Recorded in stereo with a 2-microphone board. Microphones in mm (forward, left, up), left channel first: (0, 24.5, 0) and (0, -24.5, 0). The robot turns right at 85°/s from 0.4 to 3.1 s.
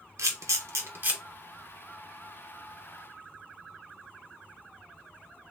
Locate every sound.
0.2 s a camera shutter: 85° right, 1.1 m; by 1.2 s 30° right (ahead or behind), 1.1 m